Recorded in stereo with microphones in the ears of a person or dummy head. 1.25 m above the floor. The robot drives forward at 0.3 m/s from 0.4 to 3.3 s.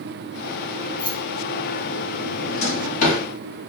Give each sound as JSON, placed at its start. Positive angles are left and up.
{"t": 1.0, "sound": "keys jangling", "side_deg": 30, "distance_m": 0.8}
{"t": 2.4, "sound": "a drawer", "side_deg": 45, "distance_m": 0.9}